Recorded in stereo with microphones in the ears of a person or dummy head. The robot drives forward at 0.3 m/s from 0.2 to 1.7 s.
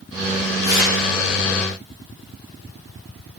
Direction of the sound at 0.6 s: 50° left (ahead or behind).